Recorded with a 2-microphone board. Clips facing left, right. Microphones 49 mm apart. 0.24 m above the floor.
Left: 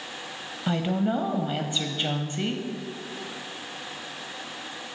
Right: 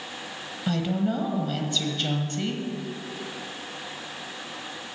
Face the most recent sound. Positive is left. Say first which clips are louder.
# left 1 dB
turn(degrees=20)  # may be behind; listen again after turning